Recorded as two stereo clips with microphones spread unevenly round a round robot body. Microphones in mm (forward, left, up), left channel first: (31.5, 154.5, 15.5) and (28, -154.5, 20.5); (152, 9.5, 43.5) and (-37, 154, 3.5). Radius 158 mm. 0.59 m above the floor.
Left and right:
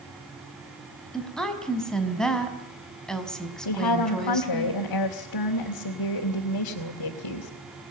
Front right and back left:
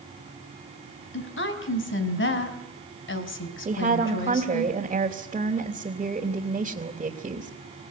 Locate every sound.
1.1 s a woman speaking: straight ahead, 4.5 m
3.6 s a woman speaking: 85° left, 3.5 m